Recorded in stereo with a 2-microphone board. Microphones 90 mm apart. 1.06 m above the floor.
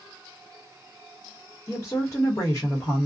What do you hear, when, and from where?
1.7 s a woman speaking: 35° left (ahead or behind), 1.0 m